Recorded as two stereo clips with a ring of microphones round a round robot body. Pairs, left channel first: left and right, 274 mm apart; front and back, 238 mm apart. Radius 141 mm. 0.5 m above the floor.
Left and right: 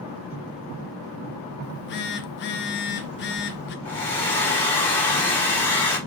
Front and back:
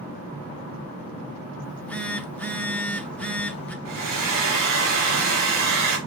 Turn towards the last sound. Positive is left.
turn(degrees=175)